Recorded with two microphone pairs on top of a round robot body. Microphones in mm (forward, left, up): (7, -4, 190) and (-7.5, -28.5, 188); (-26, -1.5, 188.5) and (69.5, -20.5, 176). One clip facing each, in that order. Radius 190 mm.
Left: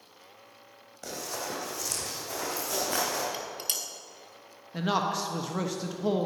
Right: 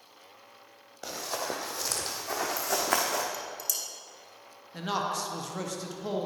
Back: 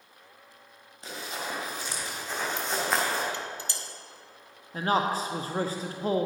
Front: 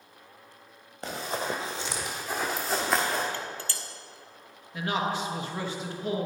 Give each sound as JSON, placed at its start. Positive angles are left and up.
{"t": 1.0, "sound": "running footsteps", "azimuth_deg": -55, "distance_m": 1.1}
{"t": 3.3, "sound": "dishes clattering", "azimuth_deg": 95, "distance_m": 1.1}
{"t": 4.7, "sound": "a man speaking", "azimuth_deg": 135, "distance_m": 0.9}